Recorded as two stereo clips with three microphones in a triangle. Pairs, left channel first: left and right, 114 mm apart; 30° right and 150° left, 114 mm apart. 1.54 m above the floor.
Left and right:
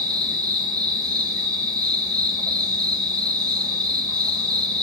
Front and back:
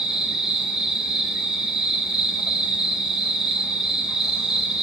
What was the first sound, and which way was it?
An insect, 125° right.